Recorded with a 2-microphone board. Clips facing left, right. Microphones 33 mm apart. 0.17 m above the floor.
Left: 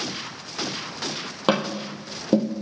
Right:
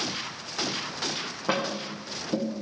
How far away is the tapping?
About 2.0 m.